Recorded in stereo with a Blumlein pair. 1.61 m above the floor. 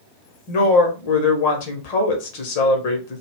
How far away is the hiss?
I don't hear a hiss.